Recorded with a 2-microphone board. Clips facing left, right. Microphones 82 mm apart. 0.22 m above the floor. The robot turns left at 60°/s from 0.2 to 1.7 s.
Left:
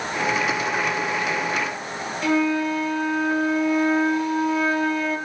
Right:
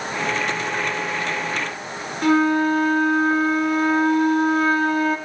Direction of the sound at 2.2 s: 60° right (ahead or behind).